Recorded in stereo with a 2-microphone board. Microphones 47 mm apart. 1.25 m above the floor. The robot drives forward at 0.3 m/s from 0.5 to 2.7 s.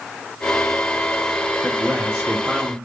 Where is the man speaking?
20° right (ahead or behind), 0.6 m; by 2.8 s 15° right (ahead or behind), 0.9 m.